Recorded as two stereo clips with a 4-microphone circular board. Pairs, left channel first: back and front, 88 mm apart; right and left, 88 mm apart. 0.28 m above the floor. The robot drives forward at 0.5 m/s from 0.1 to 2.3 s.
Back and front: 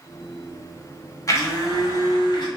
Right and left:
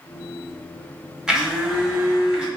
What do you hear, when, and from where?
1.3 s a blender: 170° left, 1.1 m; by 2.5 s 175° left, 1.5 m